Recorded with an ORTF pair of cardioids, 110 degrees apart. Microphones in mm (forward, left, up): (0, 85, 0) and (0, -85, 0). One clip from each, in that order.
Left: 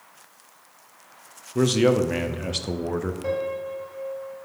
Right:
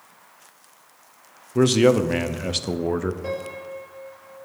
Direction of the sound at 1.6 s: 15° right.